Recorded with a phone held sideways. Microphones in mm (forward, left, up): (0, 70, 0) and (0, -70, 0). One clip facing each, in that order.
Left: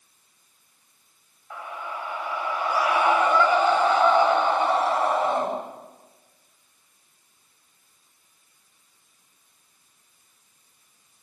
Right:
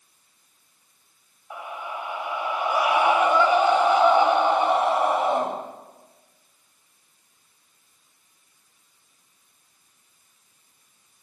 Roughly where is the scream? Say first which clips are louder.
Right 1 dB; centre.